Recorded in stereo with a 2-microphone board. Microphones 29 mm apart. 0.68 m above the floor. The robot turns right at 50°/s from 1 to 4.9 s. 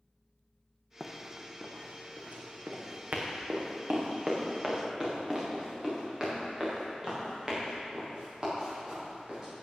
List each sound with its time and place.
1.0 s running footsteps: 5° right (ahead or behind), 1.5 m; by 9.6 s 30° right (ahead or behind), 7 m